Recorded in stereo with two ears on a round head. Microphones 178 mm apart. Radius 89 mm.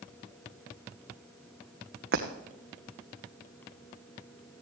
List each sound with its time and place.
2.1 s breaking glass: 50° right (ahead or behind), 1.6 m